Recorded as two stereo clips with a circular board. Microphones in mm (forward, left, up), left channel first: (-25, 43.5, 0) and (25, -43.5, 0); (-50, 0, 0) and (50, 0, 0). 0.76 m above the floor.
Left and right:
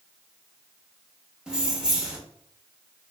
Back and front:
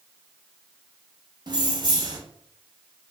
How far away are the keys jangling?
About 0.5 m.